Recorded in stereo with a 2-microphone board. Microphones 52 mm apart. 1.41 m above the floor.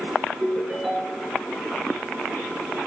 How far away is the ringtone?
About 6.5 m.